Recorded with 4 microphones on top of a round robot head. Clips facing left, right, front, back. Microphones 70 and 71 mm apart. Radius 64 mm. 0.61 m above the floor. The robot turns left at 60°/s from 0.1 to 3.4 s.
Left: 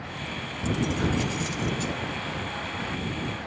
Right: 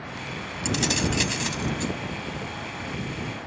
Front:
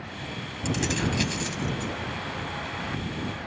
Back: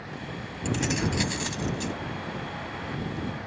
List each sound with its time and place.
0.7 s keys jangling: 80° right; by 1.9 s 155° right